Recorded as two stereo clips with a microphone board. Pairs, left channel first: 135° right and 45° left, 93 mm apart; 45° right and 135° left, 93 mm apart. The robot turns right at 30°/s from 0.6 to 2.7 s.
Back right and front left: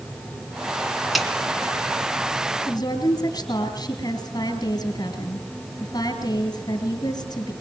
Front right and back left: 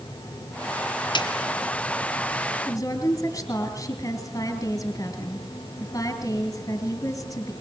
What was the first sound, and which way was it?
A snare drum, 45° right.